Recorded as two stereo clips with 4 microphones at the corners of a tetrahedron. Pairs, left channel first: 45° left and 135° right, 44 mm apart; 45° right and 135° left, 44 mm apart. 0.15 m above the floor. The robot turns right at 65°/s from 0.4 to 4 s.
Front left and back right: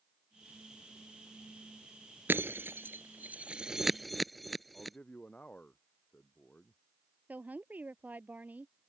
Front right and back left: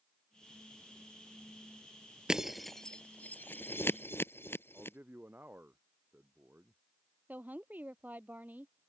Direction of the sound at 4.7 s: 100° left.